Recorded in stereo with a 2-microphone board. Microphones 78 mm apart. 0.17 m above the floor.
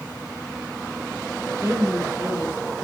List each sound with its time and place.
1.6 s a woman speaking: 35° right (ahead or behind), 4 m